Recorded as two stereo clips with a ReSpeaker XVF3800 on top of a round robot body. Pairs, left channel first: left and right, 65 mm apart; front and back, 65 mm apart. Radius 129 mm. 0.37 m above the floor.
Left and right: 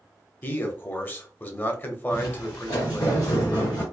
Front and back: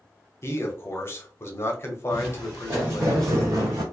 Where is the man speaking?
40° left, 1.2 m.